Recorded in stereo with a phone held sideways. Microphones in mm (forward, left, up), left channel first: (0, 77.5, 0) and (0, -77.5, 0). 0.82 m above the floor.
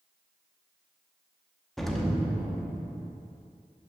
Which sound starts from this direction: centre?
An explosion, at 1.8 s.